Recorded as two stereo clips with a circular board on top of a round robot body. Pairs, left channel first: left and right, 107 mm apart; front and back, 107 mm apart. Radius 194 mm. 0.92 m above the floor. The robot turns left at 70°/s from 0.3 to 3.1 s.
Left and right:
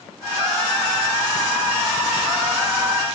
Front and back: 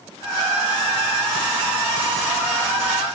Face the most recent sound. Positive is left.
No sound to turn to.